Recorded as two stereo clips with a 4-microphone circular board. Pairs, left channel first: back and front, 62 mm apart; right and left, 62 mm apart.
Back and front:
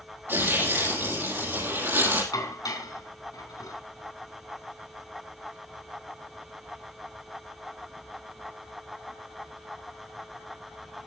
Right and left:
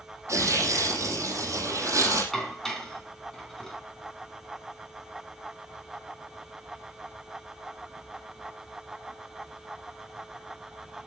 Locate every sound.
0.3 s tearing paper: 50° left, 6 m
2.3 s dishes clattering: 175° right, 3.5 m